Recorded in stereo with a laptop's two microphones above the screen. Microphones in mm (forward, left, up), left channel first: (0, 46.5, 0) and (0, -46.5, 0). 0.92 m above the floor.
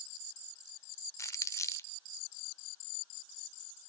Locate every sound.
1.2 s crumpling: 30° left (ahead or behind), 0.6 m